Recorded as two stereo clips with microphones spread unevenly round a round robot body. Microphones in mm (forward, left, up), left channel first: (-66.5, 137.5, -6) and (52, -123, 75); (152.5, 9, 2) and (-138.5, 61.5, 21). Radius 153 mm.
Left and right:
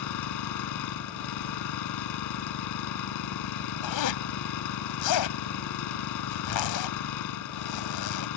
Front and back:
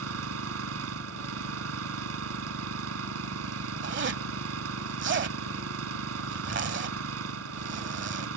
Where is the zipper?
115° left.